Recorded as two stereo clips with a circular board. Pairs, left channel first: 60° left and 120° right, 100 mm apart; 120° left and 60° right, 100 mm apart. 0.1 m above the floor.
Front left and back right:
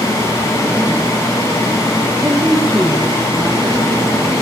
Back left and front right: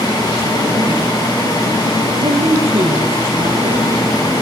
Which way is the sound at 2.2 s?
45° right.